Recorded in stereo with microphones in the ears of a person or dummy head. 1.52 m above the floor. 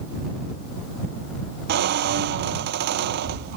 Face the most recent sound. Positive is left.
turn(degrees=-50)  # may be behind; listen again after turning